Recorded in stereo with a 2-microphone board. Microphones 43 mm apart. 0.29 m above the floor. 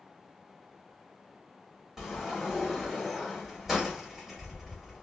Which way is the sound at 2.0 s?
5° right (ahead or behind).